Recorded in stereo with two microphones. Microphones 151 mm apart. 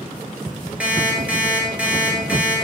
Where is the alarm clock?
10° right (ahead or behind), 1.4 m.